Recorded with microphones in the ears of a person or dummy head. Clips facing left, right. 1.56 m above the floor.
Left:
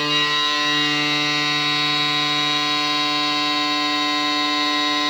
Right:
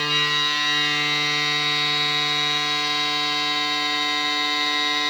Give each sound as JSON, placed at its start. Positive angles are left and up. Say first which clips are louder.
{"t": 0.0, "sound": "a machine running", "louder": "left 4 dB", "side_deg": 60, "distance_m": 1.3}